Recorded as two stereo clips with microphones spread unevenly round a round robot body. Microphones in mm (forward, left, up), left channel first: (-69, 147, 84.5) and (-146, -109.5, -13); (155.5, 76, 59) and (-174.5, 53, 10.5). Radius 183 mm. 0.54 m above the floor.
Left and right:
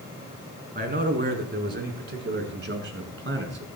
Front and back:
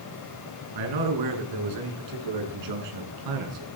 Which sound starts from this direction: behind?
A man speaking, at 0.8 s.